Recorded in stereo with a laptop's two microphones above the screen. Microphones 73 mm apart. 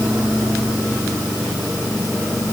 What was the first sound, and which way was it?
Only background noise.